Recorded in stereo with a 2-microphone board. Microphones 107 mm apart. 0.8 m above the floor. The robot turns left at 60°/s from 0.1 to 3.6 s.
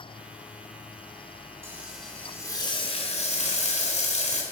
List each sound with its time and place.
1.6 s frying: 160° right, 3.5 m; by 4.4 s 80° left, 3.5 m